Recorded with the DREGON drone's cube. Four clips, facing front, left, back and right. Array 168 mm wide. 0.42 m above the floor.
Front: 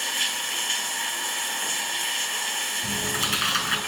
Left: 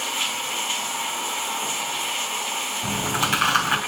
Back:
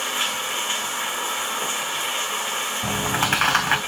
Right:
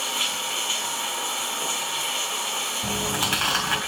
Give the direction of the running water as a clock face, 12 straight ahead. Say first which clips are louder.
Left 1 dB, back 5 dB; 6 o'clock.